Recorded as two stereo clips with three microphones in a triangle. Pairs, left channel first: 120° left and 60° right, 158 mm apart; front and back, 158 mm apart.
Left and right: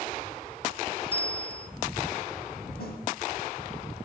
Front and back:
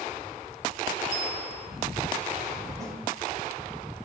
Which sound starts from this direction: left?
A snare drum, at 2.8 s.